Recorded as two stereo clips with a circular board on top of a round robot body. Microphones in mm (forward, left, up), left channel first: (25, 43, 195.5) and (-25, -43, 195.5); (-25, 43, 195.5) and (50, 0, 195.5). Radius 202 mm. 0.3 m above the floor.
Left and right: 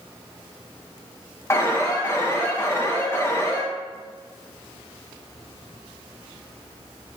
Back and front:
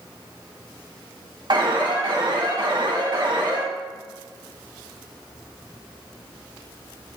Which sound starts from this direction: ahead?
An alarm, at 1.5 s.